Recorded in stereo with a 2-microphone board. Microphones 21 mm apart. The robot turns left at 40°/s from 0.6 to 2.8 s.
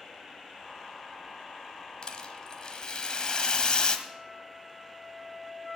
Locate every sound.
2.0 s a rattle: 100° left, 1.2 m; by 4.0 s 70° left, 1.2 m
4.1 s a flute: 15° right (ahead or behind), 1.4 m